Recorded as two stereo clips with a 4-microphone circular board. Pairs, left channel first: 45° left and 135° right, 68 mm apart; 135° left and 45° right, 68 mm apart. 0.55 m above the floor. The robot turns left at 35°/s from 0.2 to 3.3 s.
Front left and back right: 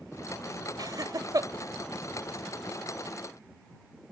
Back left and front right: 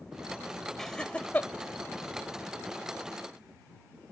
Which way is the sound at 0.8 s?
140° right.